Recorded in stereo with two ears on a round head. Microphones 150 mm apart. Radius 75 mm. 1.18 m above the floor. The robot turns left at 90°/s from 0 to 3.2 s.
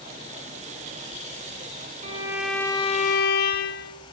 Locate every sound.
2.0 s a violin: 140° right, 1.3 m; by 3.9 s 115° left, 1.3 m